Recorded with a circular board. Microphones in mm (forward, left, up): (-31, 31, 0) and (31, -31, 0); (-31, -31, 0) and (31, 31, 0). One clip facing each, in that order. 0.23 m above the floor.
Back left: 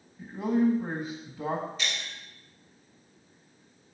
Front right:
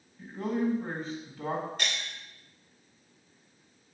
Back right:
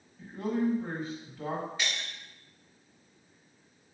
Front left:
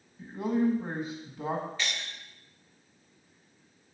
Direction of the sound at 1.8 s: 65° right.